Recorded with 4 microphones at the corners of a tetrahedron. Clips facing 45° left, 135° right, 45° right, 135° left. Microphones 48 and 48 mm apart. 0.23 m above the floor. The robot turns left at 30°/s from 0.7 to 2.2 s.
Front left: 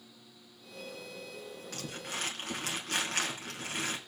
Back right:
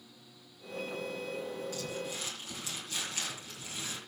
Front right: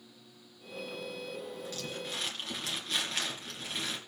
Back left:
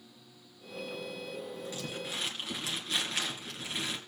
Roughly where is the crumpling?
Ahead left.